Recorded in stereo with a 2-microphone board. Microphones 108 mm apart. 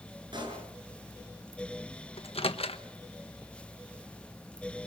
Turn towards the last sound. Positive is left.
turn(degrees=65)  # may be behind; listen again after turning